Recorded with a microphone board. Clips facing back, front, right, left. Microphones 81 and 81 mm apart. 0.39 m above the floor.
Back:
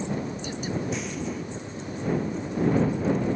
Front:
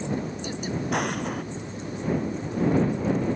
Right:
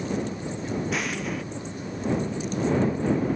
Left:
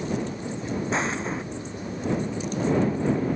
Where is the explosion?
30° left.